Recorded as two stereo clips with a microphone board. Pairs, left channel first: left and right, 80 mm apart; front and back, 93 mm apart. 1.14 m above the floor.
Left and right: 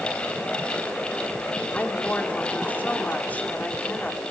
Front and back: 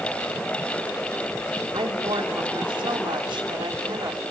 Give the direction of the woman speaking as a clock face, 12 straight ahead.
7 o'clock.